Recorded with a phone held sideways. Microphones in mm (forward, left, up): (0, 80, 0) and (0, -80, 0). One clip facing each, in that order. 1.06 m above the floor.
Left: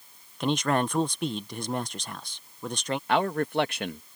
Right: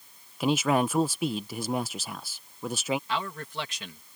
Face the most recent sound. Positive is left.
turn(degrees=60)  # may be behind; listen again after turning